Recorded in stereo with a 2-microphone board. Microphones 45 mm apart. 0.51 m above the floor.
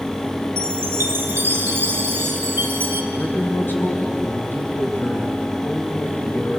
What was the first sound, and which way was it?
A chime, 55° right (ahead or behind).